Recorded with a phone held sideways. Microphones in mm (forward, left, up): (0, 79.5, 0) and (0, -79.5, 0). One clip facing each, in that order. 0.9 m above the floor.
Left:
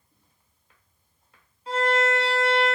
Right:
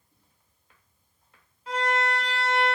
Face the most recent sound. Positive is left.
turn(degrees=30)  # may be behind; listen again after turning